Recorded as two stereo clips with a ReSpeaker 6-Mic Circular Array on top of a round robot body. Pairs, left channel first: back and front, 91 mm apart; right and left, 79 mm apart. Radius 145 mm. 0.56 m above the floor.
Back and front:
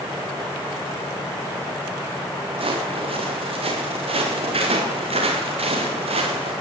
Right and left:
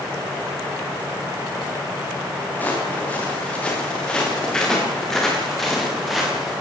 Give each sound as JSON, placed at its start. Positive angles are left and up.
{"t": 2.5, "sound": "footsteps", "azimuth_deg": -20, "distance_m": 6.5}